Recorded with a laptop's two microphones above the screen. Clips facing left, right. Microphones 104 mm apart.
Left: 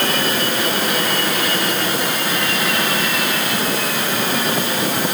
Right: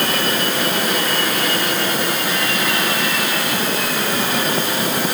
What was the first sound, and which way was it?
Only background noise.